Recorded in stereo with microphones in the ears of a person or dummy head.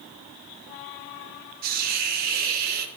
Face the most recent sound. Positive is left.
turn(degrees=-50)  # may be behind; listen again after turning